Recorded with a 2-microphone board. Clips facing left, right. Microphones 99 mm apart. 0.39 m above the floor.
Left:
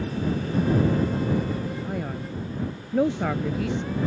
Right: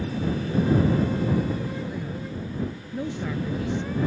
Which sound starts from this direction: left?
A man speaking, at 1.9 s.